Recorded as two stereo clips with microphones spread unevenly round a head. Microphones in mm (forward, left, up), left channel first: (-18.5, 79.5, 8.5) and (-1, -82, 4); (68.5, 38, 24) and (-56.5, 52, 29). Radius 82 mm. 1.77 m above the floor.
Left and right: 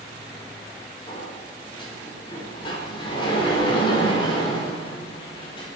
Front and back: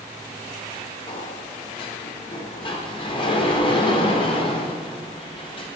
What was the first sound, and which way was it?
A sliding door, 35° left.